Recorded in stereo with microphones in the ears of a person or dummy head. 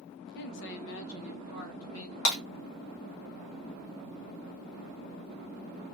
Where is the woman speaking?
55° left (ahead or behind), 0.7 m; by 2.1 s 85° left, 1.8 m.